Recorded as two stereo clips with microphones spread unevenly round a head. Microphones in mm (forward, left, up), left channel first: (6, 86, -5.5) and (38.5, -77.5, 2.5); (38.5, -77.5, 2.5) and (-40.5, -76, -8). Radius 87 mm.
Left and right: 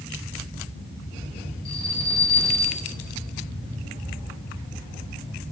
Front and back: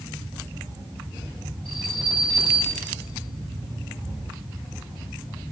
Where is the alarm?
80° left, 3.5 m.